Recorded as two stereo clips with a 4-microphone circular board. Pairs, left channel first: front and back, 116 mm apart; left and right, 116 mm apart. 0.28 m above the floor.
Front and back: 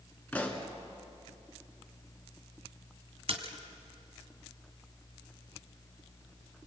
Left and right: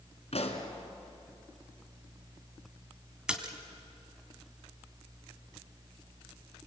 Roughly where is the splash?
Behind.